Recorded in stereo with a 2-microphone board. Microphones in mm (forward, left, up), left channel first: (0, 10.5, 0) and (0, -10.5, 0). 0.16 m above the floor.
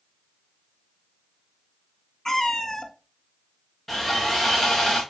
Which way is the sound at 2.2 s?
25° left (ahead or behind).